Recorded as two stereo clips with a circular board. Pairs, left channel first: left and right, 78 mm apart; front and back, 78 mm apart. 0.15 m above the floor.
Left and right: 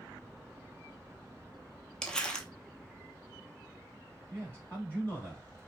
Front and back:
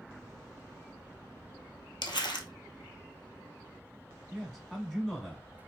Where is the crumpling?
10° left, 0.7 m.